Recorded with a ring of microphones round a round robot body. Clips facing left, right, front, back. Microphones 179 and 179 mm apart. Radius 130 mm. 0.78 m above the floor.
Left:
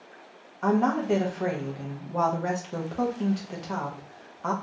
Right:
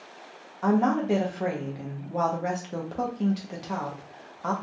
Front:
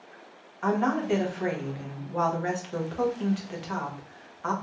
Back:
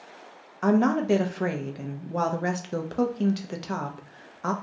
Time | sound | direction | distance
0.6 | a woman speaking | 175° right | 0.5 m